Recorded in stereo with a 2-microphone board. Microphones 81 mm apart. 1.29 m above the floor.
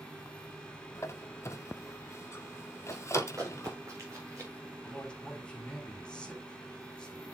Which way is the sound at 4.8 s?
10° left (ahead or behind).